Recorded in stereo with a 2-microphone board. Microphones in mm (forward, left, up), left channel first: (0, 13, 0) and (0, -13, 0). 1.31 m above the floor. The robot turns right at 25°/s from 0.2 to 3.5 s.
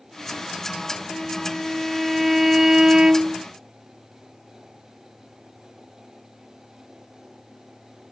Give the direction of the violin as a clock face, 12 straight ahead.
7 o'clock.